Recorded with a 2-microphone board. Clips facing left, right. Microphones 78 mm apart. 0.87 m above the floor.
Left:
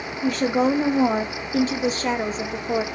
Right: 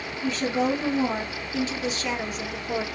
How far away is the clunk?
No clunk in this recording.